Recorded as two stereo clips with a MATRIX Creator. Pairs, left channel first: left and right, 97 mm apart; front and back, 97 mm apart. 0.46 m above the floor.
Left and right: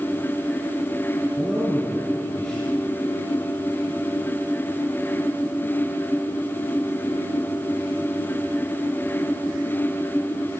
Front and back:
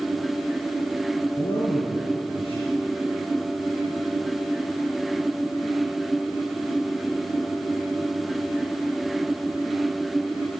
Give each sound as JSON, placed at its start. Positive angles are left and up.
{"t": 1.4, "sound": "a man speaking", "azimuth_deg": 5, "distance_m": 6.5}